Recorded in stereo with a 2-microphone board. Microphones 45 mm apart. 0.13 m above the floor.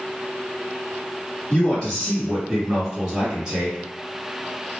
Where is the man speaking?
20° left (ahead or behind), 1.5 m; by 3.8 s 25° right (ahead or behind), 1.8 m.